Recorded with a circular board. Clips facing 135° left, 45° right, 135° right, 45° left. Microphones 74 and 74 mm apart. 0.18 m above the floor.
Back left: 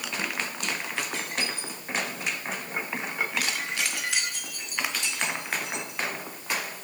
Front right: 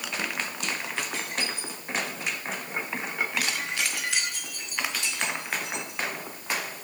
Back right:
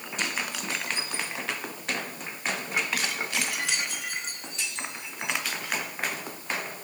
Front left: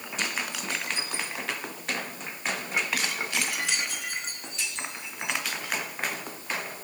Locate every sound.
Only background noise.